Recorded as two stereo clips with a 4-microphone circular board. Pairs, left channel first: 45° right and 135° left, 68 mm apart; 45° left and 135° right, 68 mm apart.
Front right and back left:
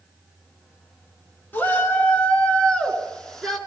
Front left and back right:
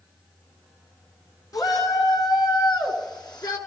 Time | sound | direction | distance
1.5 | a shout | 15° left | 3.5 m